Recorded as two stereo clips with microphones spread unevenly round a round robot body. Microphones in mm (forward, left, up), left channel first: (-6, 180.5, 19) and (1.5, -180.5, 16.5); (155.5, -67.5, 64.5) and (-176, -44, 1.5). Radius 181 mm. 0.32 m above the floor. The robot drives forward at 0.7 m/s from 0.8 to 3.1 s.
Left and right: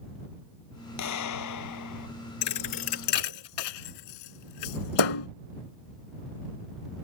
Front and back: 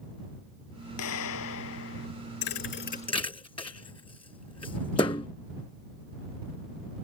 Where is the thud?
45° left; by 5.3 s 70° left.